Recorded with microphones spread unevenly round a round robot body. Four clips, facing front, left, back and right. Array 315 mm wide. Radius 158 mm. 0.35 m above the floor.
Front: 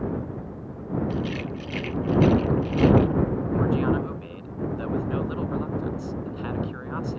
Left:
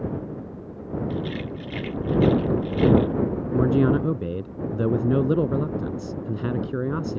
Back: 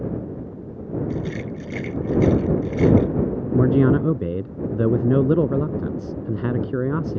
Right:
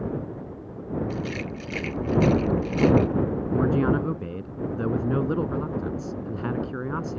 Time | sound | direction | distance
1.1 | a rattle | 155° right | ?
3.5 | a man speaking | 165° left | ?